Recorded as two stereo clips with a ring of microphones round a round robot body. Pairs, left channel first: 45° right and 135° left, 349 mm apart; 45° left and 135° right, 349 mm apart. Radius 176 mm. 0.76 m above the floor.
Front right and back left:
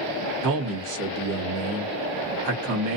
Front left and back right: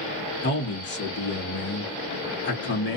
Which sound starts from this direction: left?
A man speaking, at 0.4 s.